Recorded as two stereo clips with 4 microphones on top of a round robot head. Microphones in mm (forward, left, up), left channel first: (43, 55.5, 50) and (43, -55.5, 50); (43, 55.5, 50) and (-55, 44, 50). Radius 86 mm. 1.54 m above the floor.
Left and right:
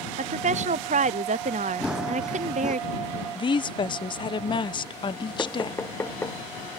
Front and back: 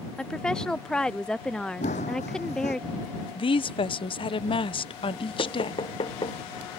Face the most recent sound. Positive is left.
turn(degrees=25)